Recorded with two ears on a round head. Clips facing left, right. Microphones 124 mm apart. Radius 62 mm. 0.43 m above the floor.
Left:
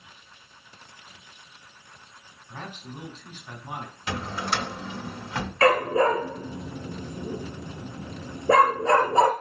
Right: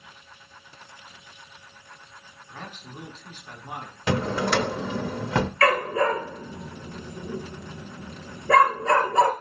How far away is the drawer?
About 0.6 m.